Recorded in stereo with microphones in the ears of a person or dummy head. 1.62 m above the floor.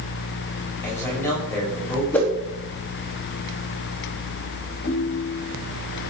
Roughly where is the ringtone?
Left.